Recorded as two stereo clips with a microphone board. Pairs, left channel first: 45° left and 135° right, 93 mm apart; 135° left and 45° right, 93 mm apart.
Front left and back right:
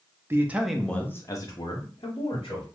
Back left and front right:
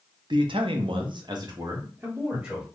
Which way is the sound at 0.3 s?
70° right.